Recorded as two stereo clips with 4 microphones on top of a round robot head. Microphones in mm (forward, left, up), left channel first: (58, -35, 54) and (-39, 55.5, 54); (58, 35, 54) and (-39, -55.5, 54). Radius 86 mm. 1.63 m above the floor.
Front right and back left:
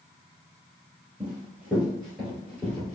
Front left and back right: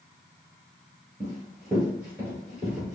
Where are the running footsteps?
Straight behind, 1.7 m; by 3.0 s 50° right, 1.6 m.